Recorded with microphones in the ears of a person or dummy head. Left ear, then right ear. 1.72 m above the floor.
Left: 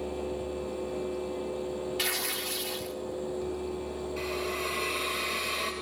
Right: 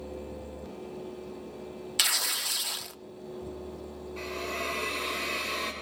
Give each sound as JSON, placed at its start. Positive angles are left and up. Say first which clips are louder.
{"t": 2.0, "sound": "tearing paper", "louder": "right 6 dB", "side_deg": -60, "distance_m": 0.7}
{"t": 4.2, "sound": "a hiss", "louder": "even", "side_deg": 5, "distance_m": 8.0}